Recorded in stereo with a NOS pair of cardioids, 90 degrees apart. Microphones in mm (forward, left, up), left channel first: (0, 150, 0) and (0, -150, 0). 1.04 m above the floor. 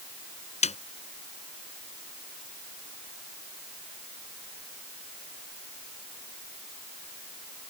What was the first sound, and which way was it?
A snare drum, 25° left.